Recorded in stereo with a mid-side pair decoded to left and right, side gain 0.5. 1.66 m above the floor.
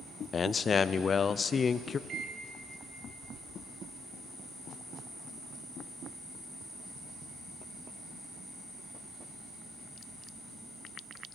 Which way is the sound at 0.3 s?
40° left.